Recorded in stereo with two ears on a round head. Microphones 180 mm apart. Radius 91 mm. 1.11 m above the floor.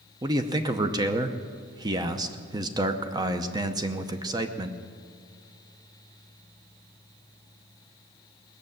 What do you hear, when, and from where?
0.2 s a man speaking: 20° right (ahead or behind), 0.8 m